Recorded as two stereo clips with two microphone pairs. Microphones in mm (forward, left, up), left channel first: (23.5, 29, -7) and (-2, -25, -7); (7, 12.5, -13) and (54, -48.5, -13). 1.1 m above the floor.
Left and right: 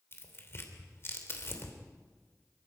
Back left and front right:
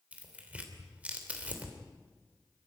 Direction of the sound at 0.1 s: 20° left.